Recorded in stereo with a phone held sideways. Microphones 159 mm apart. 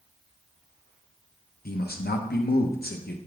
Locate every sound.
1.6 s a man speaking: 80° left, 1.0 m